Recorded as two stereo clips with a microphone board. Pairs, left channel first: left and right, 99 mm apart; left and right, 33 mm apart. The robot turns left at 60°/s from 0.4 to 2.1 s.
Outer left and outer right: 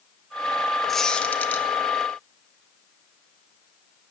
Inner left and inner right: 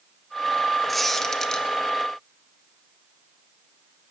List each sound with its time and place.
0.9 s a squeak: 5° left (ahead or behind), 0.8 m; by 1.7 s 20° left (ahead or behind), 0.8 m